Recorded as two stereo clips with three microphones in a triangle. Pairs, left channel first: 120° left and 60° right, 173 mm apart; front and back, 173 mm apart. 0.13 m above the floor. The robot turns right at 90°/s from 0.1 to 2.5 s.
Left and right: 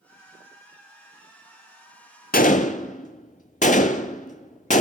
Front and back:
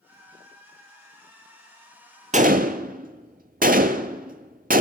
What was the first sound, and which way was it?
A gunshot, 140° left.